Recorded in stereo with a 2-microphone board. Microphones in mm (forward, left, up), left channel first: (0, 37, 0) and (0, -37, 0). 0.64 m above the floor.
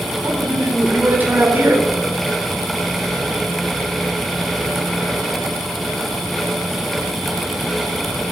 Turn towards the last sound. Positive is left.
turn(degrees=-30)  # may be behind; listen again after turning